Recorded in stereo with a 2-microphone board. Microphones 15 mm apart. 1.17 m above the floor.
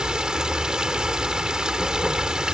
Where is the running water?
50° right (ahead or behind).